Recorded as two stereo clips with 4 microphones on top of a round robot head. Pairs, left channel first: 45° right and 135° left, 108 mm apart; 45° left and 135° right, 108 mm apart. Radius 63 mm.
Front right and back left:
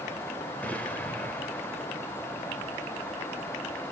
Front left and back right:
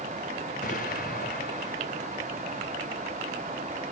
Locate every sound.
0.6 s an explosion: 35° left, 2.5 m